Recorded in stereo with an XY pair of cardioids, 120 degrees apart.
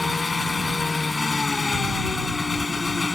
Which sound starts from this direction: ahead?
An engine running, at 0.0 s.